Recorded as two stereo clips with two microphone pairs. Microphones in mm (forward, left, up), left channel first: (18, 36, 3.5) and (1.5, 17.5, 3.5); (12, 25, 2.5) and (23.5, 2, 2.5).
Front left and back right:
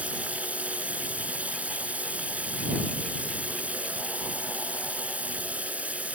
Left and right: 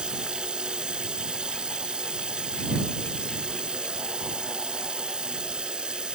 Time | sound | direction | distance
0.0 | running water | 115° right | ?